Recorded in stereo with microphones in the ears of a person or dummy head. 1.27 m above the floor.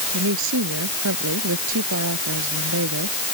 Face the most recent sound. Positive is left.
turn(degrees=-65)  # may be behind; listen again after turning